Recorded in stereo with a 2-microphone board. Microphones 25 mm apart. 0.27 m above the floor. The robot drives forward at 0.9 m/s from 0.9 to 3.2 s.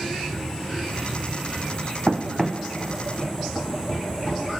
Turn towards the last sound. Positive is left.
turn(degrees=35)  # may be behind; listen again after turning